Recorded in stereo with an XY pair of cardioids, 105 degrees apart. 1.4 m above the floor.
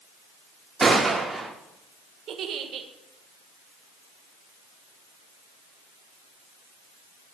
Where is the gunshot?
20° right, 4.5 m.